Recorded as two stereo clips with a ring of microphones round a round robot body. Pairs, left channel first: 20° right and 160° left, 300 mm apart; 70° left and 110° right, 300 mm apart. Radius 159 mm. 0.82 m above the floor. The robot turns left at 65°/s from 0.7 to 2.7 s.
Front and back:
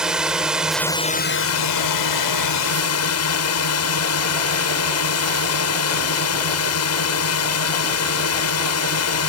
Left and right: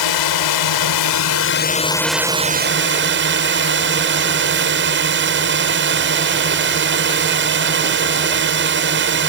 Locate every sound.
0.0 s a drone: 70° left; by 9.3 s 60° right